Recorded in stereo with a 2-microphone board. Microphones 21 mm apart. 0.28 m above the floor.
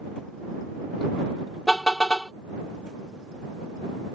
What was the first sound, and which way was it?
A car horn, 30° left (ahead or behind).